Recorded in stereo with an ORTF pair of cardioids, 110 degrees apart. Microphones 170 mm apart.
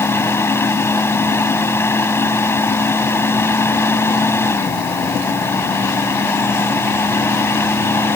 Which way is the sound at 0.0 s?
15° left.